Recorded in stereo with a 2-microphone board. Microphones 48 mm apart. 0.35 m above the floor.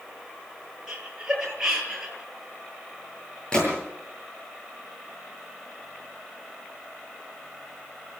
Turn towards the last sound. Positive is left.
turn(degrees=20)  # may be behind; listen again after turning